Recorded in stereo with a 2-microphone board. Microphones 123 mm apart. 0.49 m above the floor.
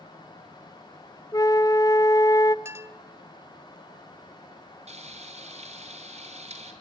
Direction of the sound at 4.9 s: 60° right (ahead or behind).